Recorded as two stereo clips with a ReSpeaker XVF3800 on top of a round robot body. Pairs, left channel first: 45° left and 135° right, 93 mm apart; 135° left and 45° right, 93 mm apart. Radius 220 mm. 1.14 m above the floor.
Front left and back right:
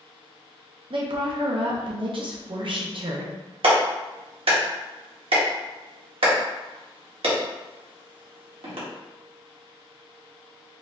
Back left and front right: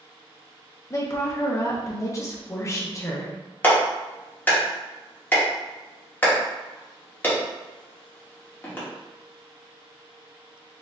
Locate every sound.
0.9 s a woman speaking: 165° right, 0.6 m
3.6 s a clap: 155° right, 1.1 m